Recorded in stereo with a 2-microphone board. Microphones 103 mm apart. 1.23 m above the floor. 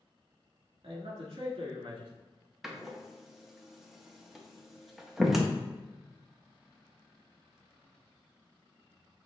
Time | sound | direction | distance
0.8 | a man speaking | 70° right (ahead or behind) | 1.7 m
2.6 | a door slam | centre (ahead or behind) | 0.7 m